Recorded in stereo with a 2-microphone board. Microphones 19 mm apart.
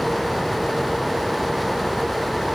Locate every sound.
Only background noise.